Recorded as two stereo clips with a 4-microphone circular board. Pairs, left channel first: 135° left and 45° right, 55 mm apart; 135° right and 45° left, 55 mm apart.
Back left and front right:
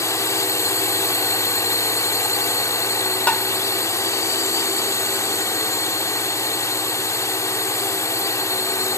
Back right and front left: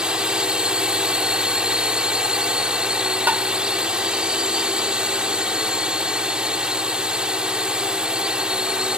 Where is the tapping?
80° left.